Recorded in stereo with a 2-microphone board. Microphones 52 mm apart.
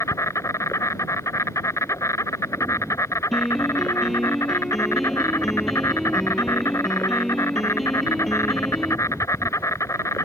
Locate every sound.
0.0 s an insect: 70° left (ahead or behind)
3.3 s a piano: centre (ahead or behind)